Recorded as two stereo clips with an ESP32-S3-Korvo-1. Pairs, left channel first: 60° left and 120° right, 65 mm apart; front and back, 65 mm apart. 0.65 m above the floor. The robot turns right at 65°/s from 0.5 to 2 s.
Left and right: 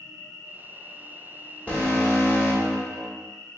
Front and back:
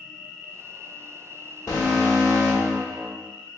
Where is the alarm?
5° right, 1.3 m; by 3.1 s 15° left, 1.3 m.